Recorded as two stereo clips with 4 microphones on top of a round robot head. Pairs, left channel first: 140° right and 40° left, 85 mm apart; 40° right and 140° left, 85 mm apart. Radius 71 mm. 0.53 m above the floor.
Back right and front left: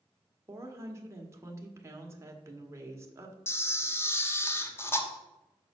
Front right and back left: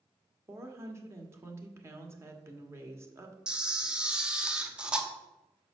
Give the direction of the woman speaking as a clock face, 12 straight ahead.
9 o'clock.